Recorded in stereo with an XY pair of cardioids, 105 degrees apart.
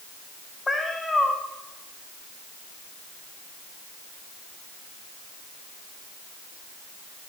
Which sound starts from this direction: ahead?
A cat meowing, at 0.7 s.